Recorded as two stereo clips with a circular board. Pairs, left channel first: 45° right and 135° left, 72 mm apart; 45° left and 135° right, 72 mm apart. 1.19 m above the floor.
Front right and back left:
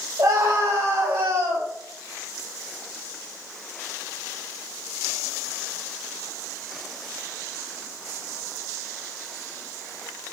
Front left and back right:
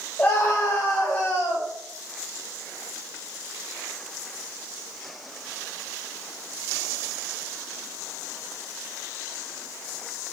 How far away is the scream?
About 4.5 m.